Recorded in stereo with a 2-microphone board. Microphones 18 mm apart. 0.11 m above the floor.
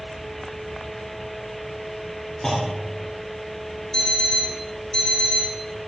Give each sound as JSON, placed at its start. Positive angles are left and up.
{"t": 0.0, "sound": "an insect", "side_deg": 65, "distance_m": 4.0}
{"t": 2.4, "sound": "a clunk", "side_deg": 35, "distance_m": 3.5}
{"t": 3.9, "sound": "an alarm clock", "side_deg": 35, "distance_m": 2.0}